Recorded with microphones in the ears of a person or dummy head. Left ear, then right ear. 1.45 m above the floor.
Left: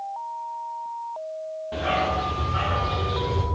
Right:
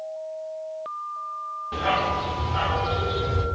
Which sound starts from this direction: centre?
A dog barking, at 1.7 s.